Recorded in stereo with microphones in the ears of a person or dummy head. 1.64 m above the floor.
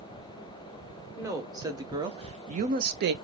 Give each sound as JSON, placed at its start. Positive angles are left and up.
{"t": 1.2, "sound": "a woman speaking", "side_deg": -15, "distance_m": 1.3}